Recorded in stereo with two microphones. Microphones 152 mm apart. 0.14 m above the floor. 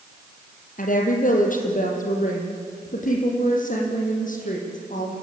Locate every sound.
0.8 s a woman speaking: 60° left (ahead or behind), 4 m